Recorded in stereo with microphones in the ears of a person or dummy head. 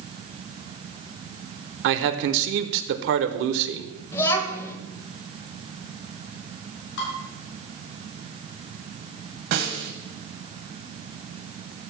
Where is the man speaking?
65° right (ahead or behind), 0.9 m.